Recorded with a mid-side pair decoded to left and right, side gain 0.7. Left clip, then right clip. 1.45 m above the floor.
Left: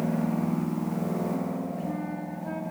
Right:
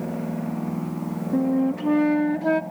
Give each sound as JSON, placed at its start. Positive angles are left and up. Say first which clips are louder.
{"t": 1.3, "sound": "a flute", "louder": "right 9 dB", "azimuth_deg": -55, "distance_m": 0.7}